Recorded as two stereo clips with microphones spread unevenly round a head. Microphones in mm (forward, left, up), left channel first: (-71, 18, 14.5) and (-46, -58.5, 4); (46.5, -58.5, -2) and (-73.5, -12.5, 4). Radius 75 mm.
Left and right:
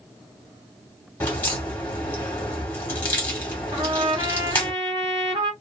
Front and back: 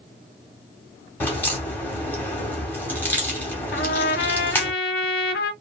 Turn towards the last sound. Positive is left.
turn(degrees=-15)